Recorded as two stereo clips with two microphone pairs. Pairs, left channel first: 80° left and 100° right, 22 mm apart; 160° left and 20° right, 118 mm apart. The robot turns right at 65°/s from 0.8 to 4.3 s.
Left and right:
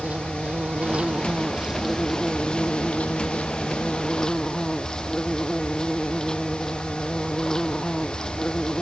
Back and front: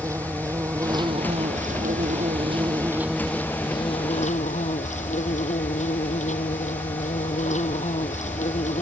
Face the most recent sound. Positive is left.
turn(degrees=140)